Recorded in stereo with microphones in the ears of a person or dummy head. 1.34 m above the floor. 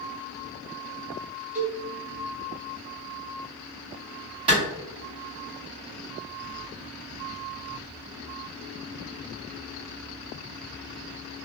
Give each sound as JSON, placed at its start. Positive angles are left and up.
{"t": 1.6, "sound": "a cowbell", "side_deg": -10, "distance_m": 0.5}
{"t": 4.5, "sound": "a clap", "side_deg": -25, "distance_m": 1.2}